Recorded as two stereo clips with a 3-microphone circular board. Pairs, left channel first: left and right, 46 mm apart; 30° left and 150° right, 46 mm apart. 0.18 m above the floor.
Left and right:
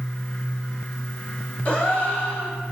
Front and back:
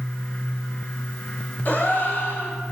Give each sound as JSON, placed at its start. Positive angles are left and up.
{"t": 1.6, "sound": "a gasp", "azimuth_deg": 50, "distance_m": 2.0}